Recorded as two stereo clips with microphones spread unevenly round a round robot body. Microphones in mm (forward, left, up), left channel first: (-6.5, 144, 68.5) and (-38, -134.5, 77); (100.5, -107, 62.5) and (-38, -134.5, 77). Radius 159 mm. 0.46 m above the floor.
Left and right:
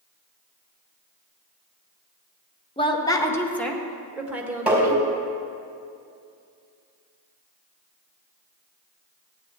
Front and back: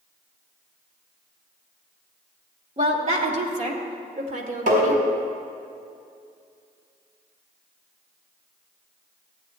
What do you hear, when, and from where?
2.8 s a woman speaking: 150° left, 1.3 m; by 5.0 s 175° right, 2 m
4.7 s tapping: straight behind, 4.5 m